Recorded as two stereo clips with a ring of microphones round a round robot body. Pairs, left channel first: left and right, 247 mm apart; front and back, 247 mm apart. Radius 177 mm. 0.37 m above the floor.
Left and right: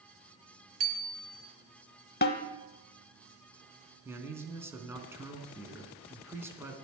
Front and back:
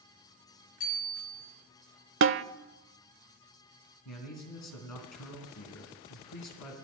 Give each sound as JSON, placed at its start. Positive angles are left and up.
{"t": 0.8, "sound": "a bicycle bell", "azimuth_deg": -65, "distance_m": 3.0}
{"t": 2.2, "sound": "a snare drum", "azimuth_deg": 145, "distance_m": 0.7}
{"t": 4.0, "sound": "a man speaking", "azimuth_deg": -10, "distance_m": 4.0}